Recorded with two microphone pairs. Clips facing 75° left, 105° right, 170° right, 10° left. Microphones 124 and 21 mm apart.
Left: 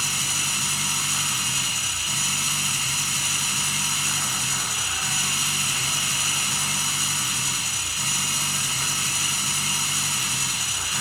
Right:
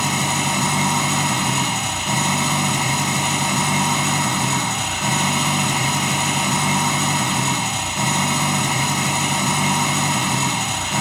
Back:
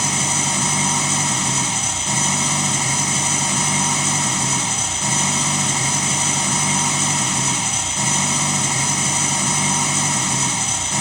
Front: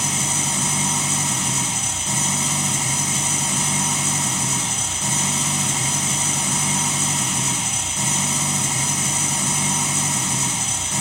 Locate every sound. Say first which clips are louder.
0.0 s an engine running: right 13 dB, back 2 dB; 95° right